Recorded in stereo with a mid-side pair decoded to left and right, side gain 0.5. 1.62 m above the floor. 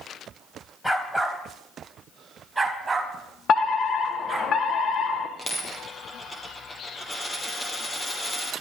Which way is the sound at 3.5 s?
55° left.